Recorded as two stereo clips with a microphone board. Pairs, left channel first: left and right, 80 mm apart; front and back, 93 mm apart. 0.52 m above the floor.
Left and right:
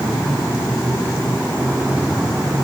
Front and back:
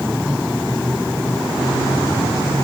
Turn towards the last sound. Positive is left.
No sound to turn to.